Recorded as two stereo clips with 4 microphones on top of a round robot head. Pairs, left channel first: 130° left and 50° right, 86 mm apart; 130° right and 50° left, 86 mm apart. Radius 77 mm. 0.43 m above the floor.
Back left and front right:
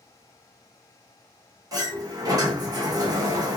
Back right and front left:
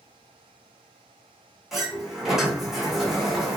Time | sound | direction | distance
1.7 | a sliding door | 35° right | 1.7 m